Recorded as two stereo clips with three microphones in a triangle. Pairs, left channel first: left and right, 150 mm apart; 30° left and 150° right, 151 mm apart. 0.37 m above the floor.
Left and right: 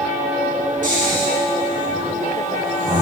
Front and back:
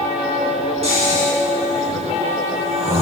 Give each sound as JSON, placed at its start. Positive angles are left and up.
{"t": 0.8, "sound": "snoring", "azimuth_deg": -105, "distance_m": 2.5}